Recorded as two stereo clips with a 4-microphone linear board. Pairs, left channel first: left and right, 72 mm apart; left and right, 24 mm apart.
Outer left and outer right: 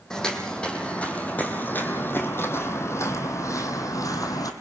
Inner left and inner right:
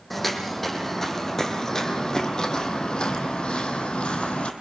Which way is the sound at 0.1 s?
10° left (ahead or behind).